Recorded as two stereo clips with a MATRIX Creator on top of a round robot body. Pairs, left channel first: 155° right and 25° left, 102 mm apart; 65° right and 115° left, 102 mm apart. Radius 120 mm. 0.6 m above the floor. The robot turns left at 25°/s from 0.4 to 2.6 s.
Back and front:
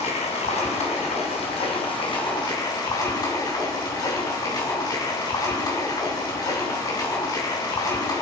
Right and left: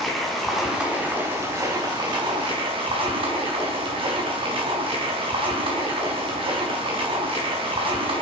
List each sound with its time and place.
0.0 s running water: 155° right, 3.5 m; by 8.2 s 150° left, 3.5 m